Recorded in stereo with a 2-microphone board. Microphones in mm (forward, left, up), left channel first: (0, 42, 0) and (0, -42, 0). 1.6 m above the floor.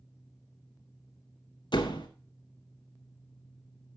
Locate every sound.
1.7 s a door slam: 60° left (ahead or behind), 1.6 m